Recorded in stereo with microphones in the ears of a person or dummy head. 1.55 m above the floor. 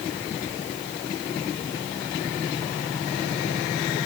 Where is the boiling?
I don't hear boiling.